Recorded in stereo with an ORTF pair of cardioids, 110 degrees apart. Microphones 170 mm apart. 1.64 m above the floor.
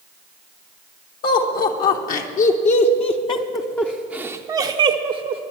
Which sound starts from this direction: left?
Laughter, at 1.2 s.